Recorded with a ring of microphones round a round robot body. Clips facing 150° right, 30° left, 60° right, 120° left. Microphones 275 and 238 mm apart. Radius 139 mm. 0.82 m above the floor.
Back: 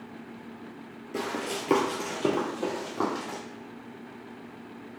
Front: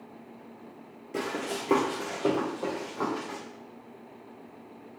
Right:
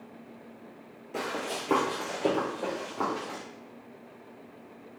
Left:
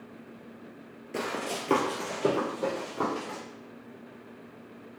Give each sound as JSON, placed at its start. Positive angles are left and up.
{"t": 1.1, "sound": "running footsteps", "azimuth_deg": 110, "distance_m": 0.8}